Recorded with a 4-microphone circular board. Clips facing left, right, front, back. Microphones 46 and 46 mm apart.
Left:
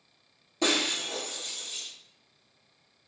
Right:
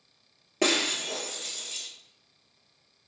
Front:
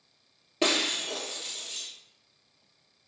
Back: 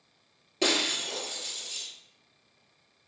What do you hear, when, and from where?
0.6 s breaking glass: 75° right, 0.8 m